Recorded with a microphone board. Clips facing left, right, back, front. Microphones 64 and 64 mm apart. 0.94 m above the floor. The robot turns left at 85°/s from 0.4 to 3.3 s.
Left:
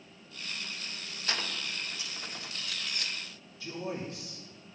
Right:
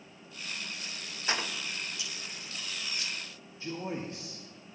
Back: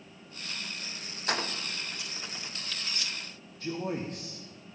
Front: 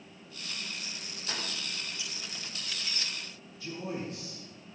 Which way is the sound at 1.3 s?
155° right.